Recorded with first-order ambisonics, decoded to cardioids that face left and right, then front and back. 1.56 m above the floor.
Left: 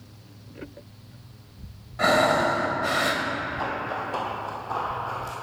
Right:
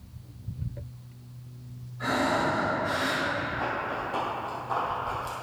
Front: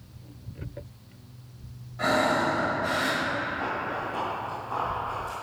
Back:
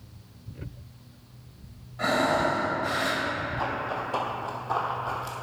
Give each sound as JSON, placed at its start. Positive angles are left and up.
{"t": 2.0, "sound": "breathing", "azimuth_deg": 90, "distance_m": 1.4}
{"t": 3.6, "sound": "running footsteps", "azimuth_deg": 145, "distance_m": 2.0}